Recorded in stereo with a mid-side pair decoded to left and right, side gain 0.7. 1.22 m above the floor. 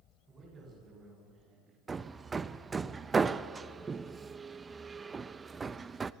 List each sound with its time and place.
0.3 s a man speaking: 30° right, 10 m; by 1.8 s 35° right, 9 m
1.9 s hammering: 25° right, 0.7 m